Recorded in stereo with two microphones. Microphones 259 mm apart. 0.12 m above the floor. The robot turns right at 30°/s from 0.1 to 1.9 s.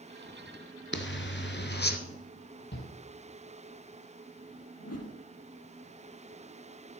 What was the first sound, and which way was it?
A zipper, 45° left (ahead or behind).